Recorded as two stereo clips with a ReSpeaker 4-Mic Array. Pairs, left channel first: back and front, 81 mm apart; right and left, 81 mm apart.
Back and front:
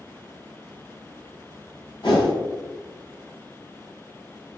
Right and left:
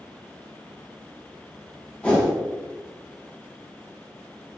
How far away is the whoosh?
About 1.8 m.